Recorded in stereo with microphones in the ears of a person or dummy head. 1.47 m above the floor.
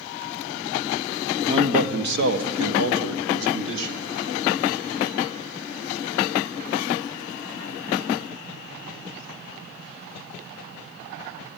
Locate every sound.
1.5 s a man speaking: 20° right (ahead or behind), 1.1 m; by 4.1 s 70° right (ahead or behind), 3 m